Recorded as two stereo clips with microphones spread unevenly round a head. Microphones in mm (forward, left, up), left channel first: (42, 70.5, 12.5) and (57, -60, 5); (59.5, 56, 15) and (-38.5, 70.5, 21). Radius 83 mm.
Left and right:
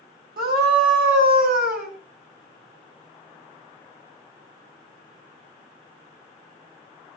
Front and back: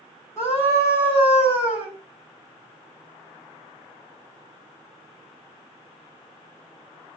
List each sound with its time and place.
0.4 s a scream: 80° right, 7 m